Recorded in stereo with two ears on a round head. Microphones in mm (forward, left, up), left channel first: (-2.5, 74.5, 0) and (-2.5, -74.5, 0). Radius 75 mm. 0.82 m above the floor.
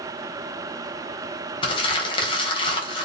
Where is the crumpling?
30° left (ahead or behind), 3.5 m.